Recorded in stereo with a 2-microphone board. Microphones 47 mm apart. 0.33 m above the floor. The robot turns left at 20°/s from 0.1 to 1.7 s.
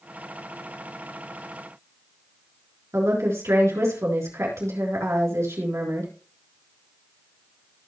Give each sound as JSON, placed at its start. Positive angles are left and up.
{"t": 2.9, "sound": "a woman speaking", "side_deg": -75, "distance_m": 4.0}